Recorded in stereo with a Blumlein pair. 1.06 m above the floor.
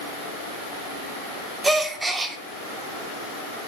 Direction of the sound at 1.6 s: 10° right.